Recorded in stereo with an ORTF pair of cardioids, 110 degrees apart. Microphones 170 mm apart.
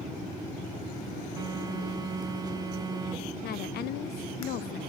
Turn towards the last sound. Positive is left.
turn(degrees=70)